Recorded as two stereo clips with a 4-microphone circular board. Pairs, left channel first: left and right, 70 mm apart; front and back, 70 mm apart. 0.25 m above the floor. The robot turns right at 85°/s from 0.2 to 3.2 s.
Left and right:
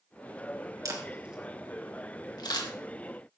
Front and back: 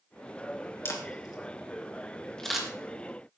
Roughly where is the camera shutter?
Ahead right.